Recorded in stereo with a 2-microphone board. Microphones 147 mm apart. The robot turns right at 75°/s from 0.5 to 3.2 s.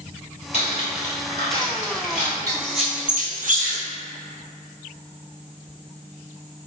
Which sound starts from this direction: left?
Cutlery clinking, at 0.5 s.